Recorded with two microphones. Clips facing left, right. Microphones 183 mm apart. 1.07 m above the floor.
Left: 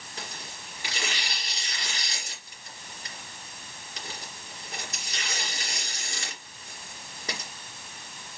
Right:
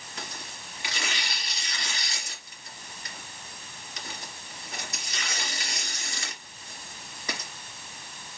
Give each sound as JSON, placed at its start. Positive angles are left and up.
{"t": 0.2, "sound": "tearing paper", "side_deg": 35, "distance_m": 2.5}